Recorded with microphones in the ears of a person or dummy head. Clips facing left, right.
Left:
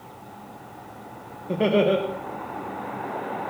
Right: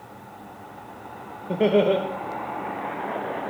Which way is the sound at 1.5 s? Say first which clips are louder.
Right 1 dB; 5° right (ahead or behind).